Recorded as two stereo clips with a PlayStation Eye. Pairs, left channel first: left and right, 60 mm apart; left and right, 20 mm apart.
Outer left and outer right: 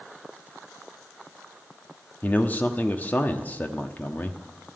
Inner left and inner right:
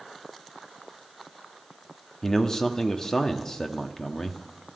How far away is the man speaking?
About 1.0 m.